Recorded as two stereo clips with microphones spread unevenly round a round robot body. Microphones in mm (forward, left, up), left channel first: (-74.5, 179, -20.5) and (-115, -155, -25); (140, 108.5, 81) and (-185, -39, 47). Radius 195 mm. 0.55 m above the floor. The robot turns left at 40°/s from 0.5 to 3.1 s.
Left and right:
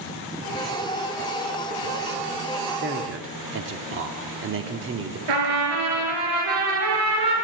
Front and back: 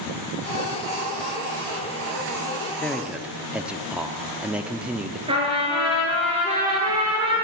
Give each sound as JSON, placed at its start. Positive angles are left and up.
{"t": 2.8, "sound": "a man speaking", "azimuth_deg": -65, "distance_m": 0.9}
{"t": 5.3, "sound": "a trumpet", "azimuth_deg": -80, "distance_m": 3.0}